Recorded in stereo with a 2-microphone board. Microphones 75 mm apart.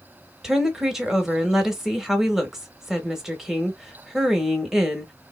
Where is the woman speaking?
5° right (ahead or behind), 0.9 m.